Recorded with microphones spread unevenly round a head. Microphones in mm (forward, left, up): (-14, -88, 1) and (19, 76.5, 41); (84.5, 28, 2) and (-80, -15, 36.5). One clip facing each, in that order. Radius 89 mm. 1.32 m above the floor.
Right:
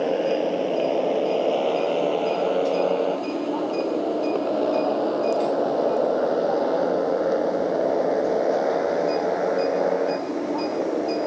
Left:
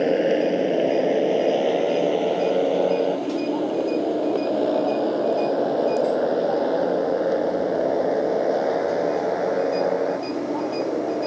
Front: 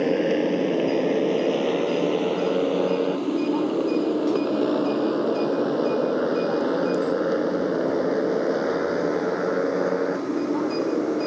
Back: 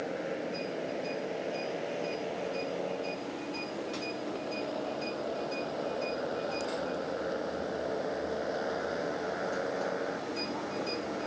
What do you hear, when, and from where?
0.0 s a motorcycle: 10° left; by 11.3 s 10° right